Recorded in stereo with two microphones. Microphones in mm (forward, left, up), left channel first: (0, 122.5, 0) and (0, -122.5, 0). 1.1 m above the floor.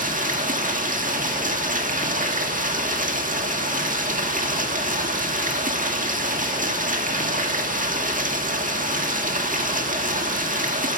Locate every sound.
0.0 s running water: 35° right (ahead or behind), 1.9 m